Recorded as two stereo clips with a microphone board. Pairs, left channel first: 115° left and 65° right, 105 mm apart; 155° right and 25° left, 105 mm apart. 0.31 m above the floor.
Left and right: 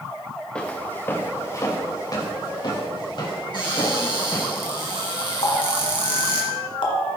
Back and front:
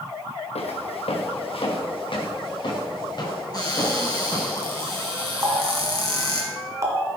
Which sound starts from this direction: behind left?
A cupboard door, at 3.5 s.